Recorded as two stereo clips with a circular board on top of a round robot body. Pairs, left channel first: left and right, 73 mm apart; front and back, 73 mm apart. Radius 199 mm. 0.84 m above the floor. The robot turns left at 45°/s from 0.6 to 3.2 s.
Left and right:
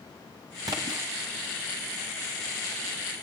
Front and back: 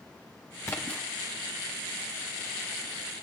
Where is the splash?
55° right, 0.6 m; by 1.0 s 70° right, 0.6 m.